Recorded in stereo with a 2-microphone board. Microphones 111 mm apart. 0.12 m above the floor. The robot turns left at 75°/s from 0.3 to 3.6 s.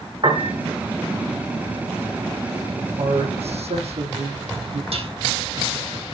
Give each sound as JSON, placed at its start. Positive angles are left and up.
{"t": 0.2, "sound": "a piano", "side_deg": -45, "distance_m": 4.5}
{"t": 3.0, "sound": "a man speaking", "azimuth_deg": -55, "distance_m": 5.0}
{"t": 4.9, "sound": "dishes clattering", "side_deg": -65, "distance_m": 4.0}